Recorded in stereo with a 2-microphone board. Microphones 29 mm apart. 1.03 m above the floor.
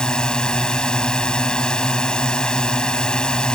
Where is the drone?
30° left (ahead or behind).